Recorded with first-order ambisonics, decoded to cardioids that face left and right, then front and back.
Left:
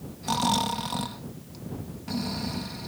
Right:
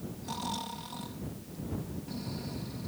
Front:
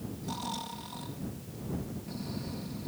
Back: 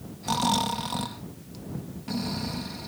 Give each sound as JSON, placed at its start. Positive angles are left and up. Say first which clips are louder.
{"t": 0.2, "sound": "snoring", "louder": "left 12 dB, back 13 dB", "azimuth_deg": 140}